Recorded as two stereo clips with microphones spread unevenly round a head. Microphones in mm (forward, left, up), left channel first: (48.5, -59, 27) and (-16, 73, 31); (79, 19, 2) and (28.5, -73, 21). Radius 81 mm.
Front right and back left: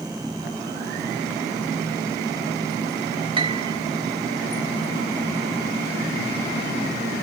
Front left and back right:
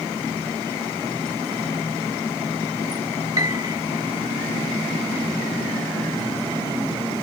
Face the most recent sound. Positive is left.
turn(degrees=175)